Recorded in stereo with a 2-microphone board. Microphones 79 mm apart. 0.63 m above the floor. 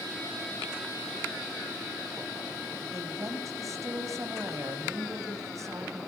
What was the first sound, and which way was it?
A woman speaking, 40° right (ahead or behind).